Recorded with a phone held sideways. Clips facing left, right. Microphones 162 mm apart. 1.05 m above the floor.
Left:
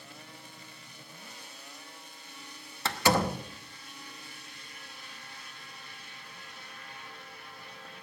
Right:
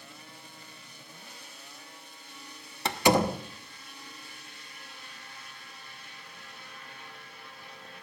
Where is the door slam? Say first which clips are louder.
Right 3 dB; 20° right (ahead or behind), 1.0 m.